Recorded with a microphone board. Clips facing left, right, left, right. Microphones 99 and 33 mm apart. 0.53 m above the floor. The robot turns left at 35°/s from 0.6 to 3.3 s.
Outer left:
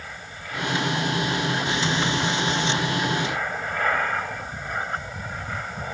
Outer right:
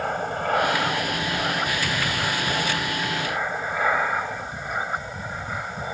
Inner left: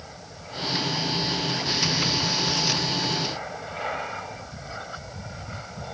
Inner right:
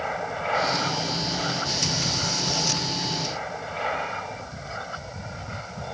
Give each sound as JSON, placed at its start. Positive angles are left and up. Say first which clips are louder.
{"t": 0.0, "sound": "an aircraft", "louder": "outer right 13 dB, inner right 14 dB", "azimuth_deg": -75}